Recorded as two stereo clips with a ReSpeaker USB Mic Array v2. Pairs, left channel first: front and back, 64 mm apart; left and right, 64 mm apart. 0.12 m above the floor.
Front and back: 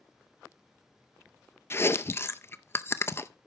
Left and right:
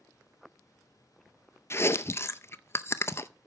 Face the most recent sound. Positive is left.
turn(degrees=45)